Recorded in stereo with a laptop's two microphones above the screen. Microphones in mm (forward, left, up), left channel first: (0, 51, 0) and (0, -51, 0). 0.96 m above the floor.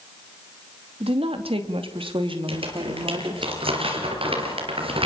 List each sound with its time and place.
1.0 s a woman speaking: 65° right (ahead or behind), 2.0 m; by 3.5 s 50° right (ahead or behind), 3 m
2.5 s crumpling: 60° right (ahead or behind), 4.5 m